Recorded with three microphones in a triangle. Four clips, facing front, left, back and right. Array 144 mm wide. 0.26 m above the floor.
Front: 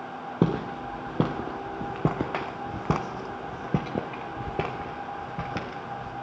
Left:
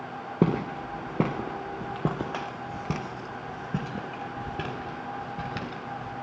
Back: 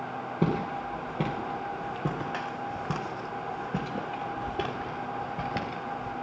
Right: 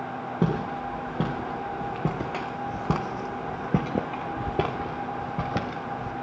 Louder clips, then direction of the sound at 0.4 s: Left 2 dB, front 3 dB; 45° left.